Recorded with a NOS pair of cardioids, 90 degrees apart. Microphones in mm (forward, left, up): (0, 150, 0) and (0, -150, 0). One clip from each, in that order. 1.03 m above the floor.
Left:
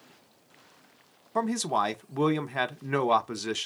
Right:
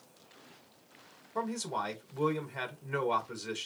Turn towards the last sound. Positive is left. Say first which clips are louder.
# left 8 dB
turn(degrees=50)